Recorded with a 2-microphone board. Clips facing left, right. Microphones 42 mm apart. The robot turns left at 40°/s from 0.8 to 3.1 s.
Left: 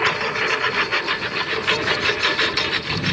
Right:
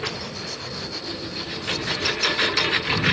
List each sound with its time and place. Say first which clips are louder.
0.0 s a lawn mower: left 11 dB; 75° left (ahead or behind); by 3.1 s 15° right (ahead or behind)